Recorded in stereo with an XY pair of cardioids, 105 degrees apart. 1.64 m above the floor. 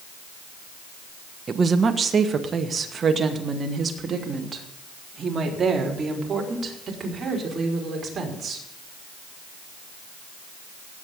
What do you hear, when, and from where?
1.5 s a woman speaking: 40° right, 1.4 m; by 8.7 s 35° right, 5.5 m